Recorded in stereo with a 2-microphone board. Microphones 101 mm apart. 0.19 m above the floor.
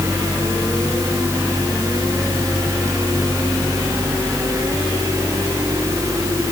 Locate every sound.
Only background noise.